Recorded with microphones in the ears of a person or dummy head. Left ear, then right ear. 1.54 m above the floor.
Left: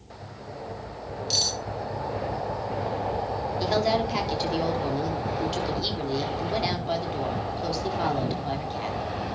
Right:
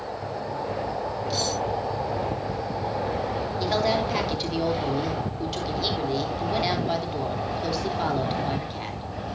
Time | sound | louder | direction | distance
1.3 | cutlery clinking | left 4 dB | 40° left (ahead or behind) | 5 m
3.6 | a woman speaking | even | 5° left (ahead or behind) | 3 m